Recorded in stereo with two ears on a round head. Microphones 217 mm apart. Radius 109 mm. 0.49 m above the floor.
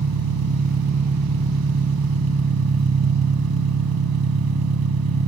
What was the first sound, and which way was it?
An engine running, 70° right (ahead or behind).